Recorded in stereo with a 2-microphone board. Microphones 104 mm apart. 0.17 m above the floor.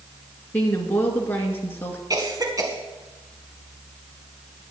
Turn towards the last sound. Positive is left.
turn(degrees=-35)  # may be behind; listen again after turning